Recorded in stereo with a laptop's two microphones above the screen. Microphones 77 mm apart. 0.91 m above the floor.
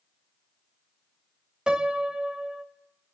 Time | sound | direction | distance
1.7 | a piano | 10° right (ahead or behind) | 0.7 m